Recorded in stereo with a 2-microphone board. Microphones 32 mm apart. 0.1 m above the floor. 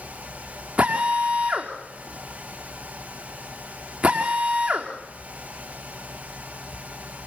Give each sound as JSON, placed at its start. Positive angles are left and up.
{"t": 0.8, "sound": "a drill", "side_deg": -45, "distance_m": 5.0}